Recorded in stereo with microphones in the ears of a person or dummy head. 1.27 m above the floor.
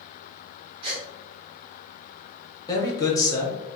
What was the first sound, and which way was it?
A gasp, 35° right (ahead or behind).